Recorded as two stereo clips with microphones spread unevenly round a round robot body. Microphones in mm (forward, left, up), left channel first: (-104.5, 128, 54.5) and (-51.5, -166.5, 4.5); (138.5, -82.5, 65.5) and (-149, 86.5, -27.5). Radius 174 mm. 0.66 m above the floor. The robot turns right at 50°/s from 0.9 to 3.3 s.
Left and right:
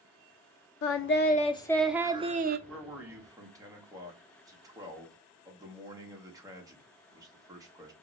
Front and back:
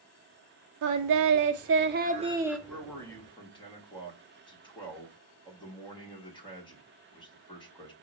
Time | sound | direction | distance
0.8 | singing | 145° left | 0.6 m
2.7 | a man speaking | 150° right | 1.1 m